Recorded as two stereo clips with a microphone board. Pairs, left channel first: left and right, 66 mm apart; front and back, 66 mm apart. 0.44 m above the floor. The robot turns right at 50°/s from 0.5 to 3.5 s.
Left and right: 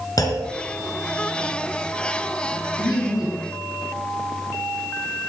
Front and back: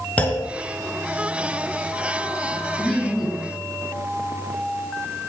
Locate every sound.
0.2 s a clunk: 70° left, 3.5 m
2.8 s laughter: 70° left, 4.5 m; by 3.5 s 110° left, 4.5 m